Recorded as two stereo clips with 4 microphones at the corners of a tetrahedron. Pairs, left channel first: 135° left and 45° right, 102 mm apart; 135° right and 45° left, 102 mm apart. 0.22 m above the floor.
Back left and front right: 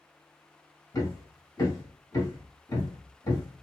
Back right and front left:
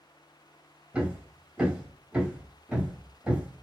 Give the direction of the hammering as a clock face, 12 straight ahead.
8 o'clock.